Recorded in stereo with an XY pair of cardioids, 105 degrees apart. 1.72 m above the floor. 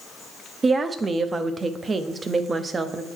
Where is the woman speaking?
30° right, 0.8 m.